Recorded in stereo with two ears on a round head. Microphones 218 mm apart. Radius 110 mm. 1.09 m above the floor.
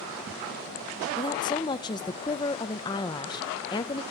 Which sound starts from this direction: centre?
A woman speaking, at 1.2 s.